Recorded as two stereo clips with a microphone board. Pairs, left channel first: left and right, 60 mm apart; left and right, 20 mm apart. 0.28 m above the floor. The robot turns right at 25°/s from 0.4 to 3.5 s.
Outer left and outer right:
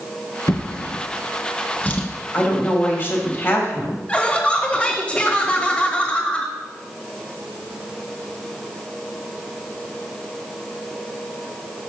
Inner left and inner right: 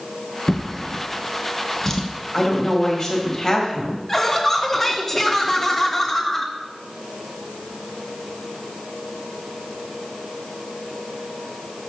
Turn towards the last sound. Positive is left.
turn(degrees=20)  # may be behind; listen again after turning